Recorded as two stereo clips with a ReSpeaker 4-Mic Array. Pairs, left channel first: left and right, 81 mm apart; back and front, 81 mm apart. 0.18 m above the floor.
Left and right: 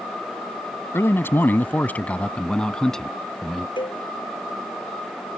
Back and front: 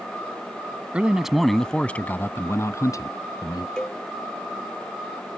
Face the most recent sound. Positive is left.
turn(degrees=100)